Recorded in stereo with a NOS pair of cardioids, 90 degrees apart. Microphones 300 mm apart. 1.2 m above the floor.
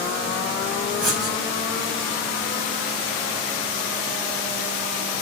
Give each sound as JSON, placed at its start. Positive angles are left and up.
{"t": 1.0, "sound": "writing", "azimuth_deg": -40, "distance_m": 7.5}